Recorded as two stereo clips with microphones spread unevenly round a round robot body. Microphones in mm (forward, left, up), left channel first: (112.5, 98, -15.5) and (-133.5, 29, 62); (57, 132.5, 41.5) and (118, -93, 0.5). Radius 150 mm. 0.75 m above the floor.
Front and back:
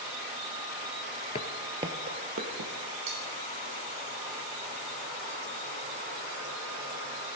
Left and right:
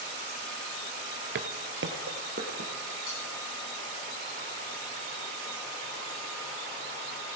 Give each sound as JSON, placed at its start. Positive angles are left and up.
{"t": 1.4, "sound": "footsteps", "azimuth_deg": -65, "distance_m": 0.8}
{"t": 3.1, "sound": "cutlery clinking", "azimuth_deg": 160, "distance_m": 4.5}